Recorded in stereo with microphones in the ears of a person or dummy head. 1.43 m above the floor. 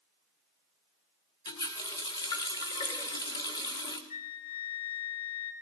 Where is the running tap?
25° left (ahead or behind), 1.4 m.